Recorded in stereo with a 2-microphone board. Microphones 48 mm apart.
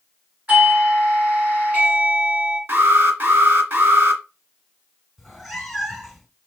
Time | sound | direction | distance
0.5 | a doorbell | 30° right (ahead or behind) | 3 m
2.7 | an alarm | 45° right (ahead or behind) | 1.6 m
5.2 | a cat meowing | centre (ahead or behind) | 0.9 m